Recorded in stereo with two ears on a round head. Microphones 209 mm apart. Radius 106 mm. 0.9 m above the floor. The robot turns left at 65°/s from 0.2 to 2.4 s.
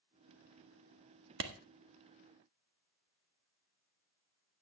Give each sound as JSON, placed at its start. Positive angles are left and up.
{"t": 1.4, "sound": "a clap", "side_deg": -55, "distance_m": 1.5}